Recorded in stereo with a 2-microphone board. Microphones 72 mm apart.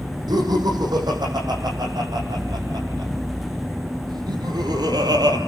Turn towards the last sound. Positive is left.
turn(degrees=-65)  # may be behind; listen again after turning